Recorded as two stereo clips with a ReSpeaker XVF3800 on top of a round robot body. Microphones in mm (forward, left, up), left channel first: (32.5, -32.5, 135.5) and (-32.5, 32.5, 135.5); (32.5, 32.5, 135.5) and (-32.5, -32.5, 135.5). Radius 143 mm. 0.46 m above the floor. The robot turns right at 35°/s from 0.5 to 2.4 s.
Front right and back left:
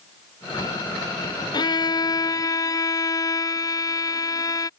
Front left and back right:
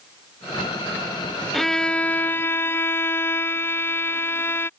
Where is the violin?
45° right; by 4.7 s 10° right.